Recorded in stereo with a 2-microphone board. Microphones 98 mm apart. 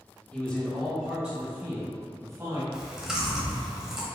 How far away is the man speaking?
About 1.2 m.